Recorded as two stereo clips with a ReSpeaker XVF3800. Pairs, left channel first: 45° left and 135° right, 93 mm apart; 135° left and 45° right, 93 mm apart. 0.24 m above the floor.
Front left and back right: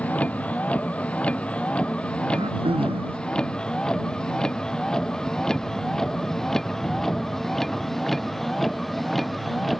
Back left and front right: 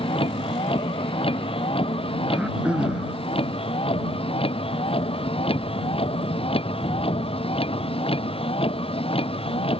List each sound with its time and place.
0.0 s a vehicle: 120° left; by 9.8 s 135° left
2.3 s throat clearing: 125° right